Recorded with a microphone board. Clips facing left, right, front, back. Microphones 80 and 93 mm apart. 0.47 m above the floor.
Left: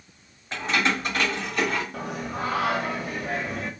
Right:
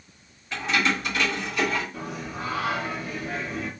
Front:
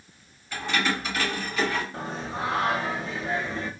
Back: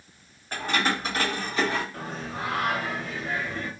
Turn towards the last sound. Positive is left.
turn(degrees=65)